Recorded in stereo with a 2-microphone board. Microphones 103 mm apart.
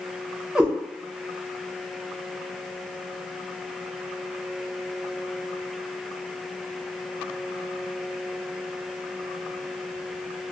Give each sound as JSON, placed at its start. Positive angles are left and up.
{"t": 0.6, "sound": "a cat meowing", "side_deg": -10, "distance_m": 0.5}